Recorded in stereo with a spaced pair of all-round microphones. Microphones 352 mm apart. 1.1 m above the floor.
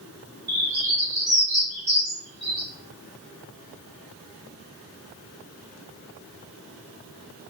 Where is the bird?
75° right (ahead or behind), 1.4 m.